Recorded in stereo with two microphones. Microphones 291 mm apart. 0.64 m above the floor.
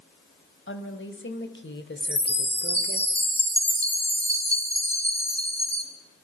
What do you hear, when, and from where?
0.7 s a woman speaking: 45° left (ahead or behind), 3 m; by 3.0 s 35° left (ahead or behind), 1.8 m
2.0 s a chime: 20° left (ahead or behind), 4 m